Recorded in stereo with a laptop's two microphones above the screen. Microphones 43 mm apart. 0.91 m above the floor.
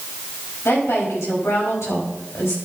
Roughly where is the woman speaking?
Left.